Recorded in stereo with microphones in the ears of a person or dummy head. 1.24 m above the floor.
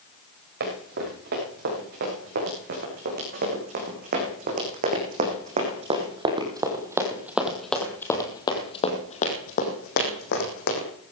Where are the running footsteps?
65° right (ahead or behind), 9 m; by 10.9 s 60° left (ahead or behind), 4 m.